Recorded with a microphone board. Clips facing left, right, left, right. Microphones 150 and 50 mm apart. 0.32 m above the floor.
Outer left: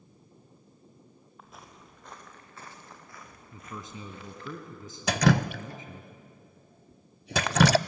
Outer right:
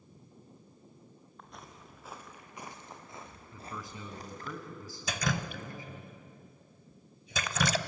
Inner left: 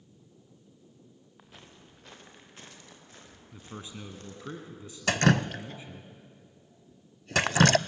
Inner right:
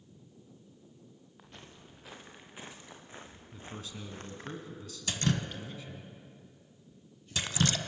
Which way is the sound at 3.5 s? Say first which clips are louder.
Outer left 2 dB, inner left 2 dB; 20° left (ahead or behind).